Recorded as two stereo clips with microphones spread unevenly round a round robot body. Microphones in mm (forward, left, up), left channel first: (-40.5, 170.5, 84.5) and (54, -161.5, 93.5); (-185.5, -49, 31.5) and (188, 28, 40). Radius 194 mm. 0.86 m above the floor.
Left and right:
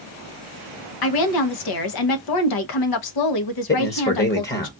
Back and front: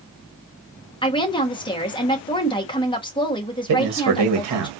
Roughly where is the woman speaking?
Behind left.